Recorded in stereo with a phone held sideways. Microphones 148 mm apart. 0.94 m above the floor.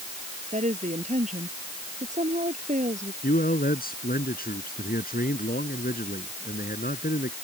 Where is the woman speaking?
55° right (ahead or behind).